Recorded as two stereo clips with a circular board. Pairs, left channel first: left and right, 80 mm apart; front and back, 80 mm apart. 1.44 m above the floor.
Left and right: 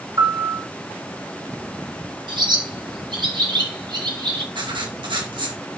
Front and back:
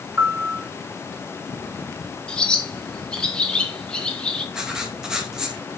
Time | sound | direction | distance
0.2 | a piano | 125° right | 1.8 m
2.3 | a bird | 80° right | 1.9 m
4.5 | writing | 100° right | 2.5 m